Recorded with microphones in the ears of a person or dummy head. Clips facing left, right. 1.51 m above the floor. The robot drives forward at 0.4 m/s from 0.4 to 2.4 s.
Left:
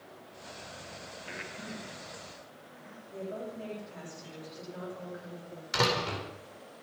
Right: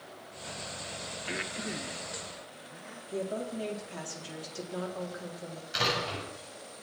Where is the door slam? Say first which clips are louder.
Left 3 dB; 80° left, 5 m.